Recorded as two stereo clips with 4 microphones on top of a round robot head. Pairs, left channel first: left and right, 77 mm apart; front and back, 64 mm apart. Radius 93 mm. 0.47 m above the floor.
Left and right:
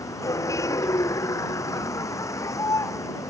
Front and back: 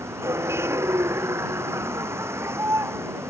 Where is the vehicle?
135° left.